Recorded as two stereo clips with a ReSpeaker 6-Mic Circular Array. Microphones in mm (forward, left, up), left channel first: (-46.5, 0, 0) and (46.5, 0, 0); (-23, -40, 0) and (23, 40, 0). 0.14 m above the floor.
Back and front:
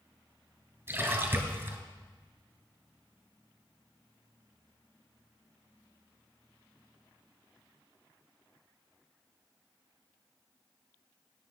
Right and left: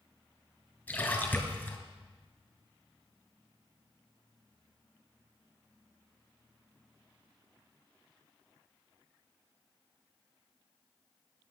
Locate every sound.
0.9 s a splash: 55° right, 2 m